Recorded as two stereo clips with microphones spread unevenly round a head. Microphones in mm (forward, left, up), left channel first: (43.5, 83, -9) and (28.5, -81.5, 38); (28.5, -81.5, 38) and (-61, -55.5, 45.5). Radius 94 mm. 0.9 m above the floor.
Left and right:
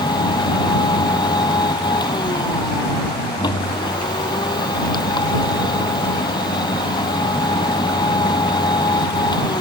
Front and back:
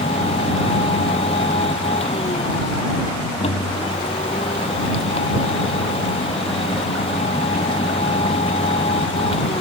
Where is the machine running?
20° left.